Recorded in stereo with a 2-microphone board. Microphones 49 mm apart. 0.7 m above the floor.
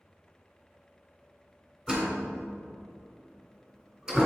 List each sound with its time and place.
1.9 s a door slam: 20° right (ahead or behind), 2.5 m